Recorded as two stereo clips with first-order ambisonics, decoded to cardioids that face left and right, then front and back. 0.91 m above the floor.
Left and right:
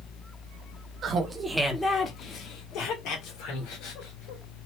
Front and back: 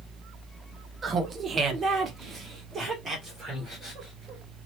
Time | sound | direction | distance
1.0 | laughter | 125° right | 0.7 m